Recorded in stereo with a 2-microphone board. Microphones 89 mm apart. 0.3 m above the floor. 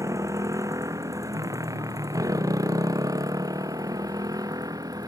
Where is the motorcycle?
40° right (ahead or behind); by 5.1 s 50° right (ahead or behind).